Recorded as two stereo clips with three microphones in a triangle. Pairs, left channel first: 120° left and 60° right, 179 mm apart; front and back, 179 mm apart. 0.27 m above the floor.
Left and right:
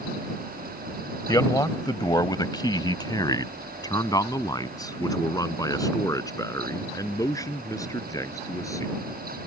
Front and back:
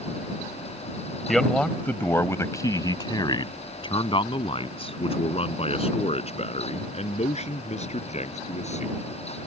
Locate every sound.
1.3 s a man speaking: 90° left; by 8.9 s 50° left